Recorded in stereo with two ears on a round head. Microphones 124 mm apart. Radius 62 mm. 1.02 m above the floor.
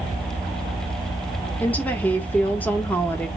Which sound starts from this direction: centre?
A woman speaking, at 1.6 s.